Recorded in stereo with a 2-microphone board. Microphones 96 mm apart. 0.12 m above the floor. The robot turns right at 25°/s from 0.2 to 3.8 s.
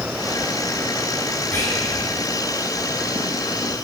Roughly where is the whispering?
Centre.